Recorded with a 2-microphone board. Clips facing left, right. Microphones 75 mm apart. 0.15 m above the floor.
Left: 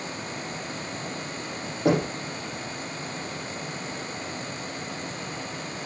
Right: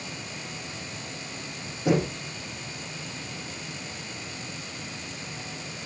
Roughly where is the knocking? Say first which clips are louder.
Left 1 dB; left.